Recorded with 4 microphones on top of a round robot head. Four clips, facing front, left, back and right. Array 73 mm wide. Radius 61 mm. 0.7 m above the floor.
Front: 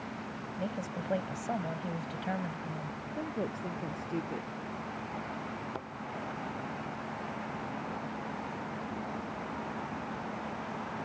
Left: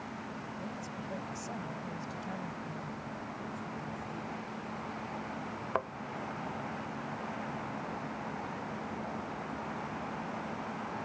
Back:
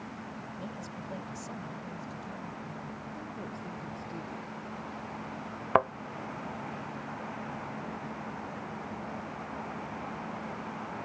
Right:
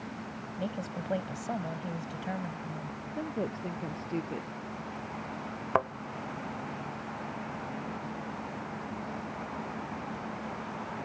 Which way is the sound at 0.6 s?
50° right.